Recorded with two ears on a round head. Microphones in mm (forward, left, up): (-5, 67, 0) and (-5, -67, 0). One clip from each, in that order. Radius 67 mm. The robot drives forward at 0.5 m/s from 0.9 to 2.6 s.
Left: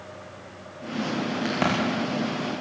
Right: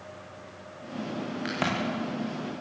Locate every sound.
1.4 s a crack: 10° right (ahead or behind), 6.5 m